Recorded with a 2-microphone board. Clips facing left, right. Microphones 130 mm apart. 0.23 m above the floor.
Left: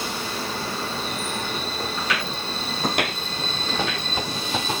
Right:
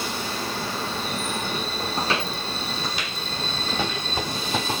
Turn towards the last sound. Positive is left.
turn(degrees=85)